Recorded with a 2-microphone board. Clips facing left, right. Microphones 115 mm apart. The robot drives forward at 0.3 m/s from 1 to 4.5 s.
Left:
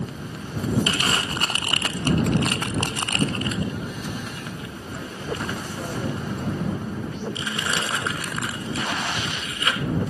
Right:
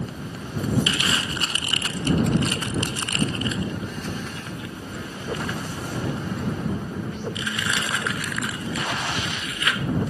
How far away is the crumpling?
About 0.6 m.